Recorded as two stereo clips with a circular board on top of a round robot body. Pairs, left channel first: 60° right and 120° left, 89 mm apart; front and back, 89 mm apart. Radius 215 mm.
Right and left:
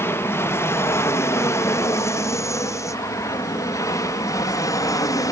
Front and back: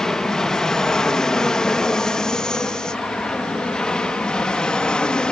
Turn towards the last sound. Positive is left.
turn(degrees=-75)